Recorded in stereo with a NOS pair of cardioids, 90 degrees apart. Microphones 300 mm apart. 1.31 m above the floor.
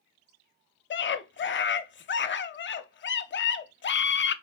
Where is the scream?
40° left, 0.8 m.